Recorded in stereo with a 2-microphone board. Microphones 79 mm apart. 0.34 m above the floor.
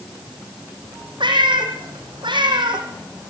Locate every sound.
1.2 s a cat meowing: 80° right, 4.5 m